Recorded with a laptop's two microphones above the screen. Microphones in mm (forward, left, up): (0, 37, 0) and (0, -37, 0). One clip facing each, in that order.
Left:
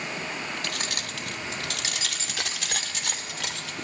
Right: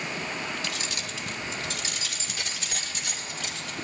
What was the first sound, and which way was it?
Keys jangling, 50° left (ahead or behind).